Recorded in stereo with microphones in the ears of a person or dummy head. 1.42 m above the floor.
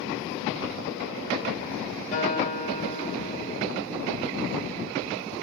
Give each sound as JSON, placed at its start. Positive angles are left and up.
{"t": 2.1, "sound": "a guitar", "side_deg": 40, "distance_m": 3.0}